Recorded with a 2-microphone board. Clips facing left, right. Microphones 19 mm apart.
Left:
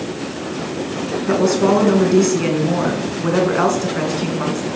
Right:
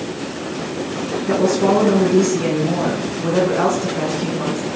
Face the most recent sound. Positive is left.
turn(degrees=40)  # may be behind; listen again after turning